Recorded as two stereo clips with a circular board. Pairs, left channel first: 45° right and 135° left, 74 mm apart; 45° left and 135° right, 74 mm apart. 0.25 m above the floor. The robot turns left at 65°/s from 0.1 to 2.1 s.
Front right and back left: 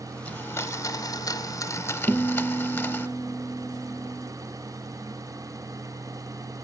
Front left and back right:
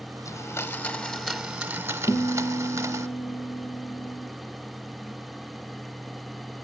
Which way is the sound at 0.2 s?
25° left.